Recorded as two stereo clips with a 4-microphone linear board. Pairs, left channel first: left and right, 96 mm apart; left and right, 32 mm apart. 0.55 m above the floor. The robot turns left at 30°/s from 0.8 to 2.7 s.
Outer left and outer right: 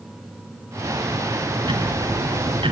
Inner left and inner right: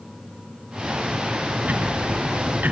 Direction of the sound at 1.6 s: 55° right.